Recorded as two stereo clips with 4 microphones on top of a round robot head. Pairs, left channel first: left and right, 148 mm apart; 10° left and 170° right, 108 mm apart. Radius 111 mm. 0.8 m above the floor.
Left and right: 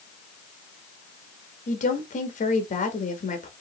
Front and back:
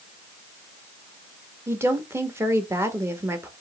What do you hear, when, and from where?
1.7 s a woman speaking: 125° left, 1.3 m